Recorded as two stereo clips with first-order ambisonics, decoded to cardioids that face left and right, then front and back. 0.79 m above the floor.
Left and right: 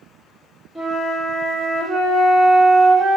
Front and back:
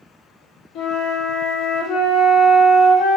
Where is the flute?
10° right, 0.6 m.